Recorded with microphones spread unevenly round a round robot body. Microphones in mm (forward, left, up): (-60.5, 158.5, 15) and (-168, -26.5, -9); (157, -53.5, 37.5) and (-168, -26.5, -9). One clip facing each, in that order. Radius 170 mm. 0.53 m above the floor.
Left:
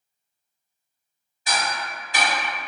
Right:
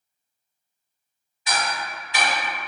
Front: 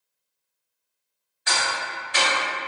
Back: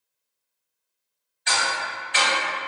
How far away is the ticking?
About 1.6 m.